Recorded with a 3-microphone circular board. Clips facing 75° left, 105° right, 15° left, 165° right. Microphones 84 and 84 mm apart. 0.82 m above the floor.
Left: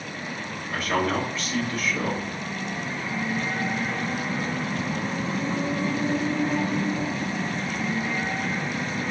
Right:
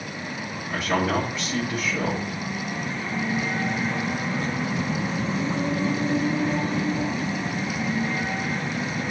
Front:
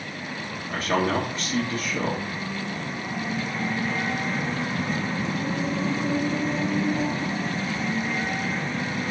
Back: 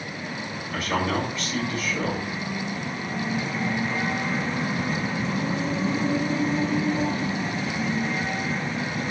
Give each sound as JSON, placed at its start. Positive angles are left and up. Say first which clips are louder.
{"t": 0.7, "sound": "a man speaking", "louder": "right 1 dB, front 2 dB", "azimuth_deg": -25, "distance_m": 0.7}